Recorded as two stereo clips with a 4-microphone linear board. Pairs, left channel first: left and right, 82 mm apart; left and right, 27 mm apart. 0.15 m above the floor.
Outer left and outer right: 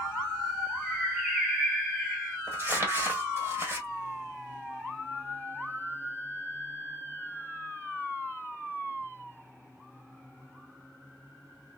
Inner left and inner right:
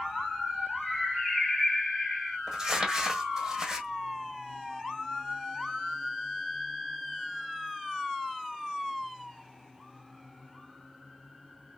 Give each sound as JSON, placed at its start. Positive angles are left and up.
{"t": 0.8, "sound": "a bird", "side_deg": -5, "distance_m": 0.9}
{"t": 2.5, "sound": "crumpling", "side_deg": -30, "distance_m": 1.2}